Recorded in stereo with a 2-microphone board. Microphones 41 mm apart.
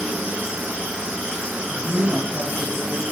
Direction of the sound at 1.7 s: 70° right (ahead or behind).